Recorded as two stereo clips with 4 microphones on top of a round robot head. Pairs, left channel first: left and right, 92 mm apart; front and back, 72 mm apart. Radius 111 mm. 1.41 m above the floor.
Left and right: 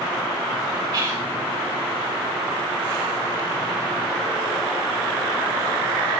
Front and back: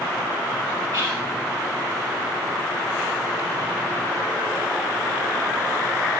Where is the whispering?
125° right, 4 m.